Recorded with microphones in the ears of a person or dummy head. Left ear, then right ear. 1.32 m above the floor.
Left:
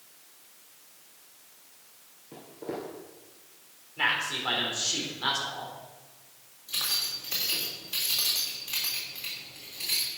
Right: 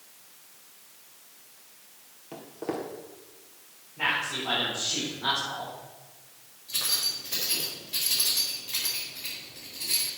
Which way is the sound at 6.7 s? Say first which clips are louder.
Right 1 dB; 40° left (ahead or behind).